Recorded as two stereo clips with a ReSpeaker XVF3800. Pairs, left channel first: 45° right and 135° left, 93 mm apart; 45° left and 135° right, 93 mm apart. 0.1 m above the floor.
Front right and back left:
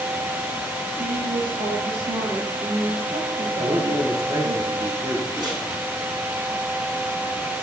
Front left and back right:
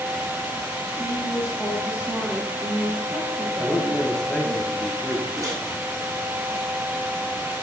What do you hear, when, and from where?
1.0 s a woman speaking: 150° left, 3 m
3.6 s a man speaking: 120° left, 1.7 m
5.4 s a microwave: 175° left, 4 m